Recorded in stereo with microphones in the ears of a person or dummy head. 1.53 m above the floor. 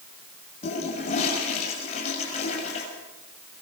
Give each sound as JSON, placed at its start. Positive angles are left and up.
{"t": 0.6, "sound": "a toilet flushing", "side_deg": 40, "distance_m": 6.0}